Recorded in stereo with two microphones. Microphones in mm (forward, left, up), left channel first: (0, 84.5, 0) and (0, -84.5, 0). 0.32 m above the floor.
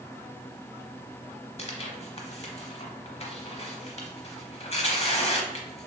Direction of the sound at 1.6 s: 40° left (ahead or behind).